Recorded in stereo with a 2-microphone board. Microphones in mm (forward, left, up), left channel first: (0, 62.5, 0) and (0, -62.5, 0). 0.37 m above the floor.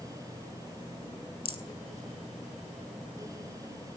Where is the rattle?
45° left (ahead or behind), 0.9 m.